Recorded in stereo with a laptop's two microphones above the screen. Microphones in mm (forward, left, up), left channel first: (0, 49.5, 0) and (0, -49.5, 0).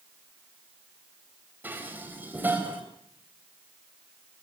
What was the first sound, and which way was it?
Dishes clattering, 20° right (ahead or behind).